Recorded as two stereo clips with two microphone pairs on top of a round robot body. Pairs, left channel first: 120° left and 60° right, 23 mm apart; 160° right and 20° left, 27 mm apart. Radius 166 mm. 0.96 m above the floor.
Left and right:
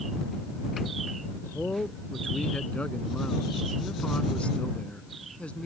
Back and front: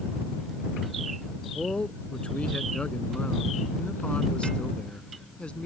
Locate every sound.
1.4 s a man speaking: 155° left